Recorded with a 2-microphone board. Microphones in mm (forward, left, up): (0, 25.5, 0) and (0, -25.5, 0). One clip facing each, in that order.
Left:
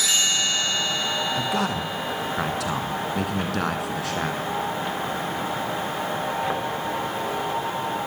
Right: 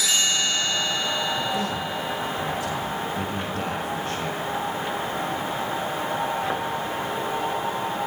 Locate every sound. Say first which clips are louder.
1.4 s a man speaking: left 1 dB; 70° left (ahead or behind), 6 m; by 4.5 s 85° left, 7 m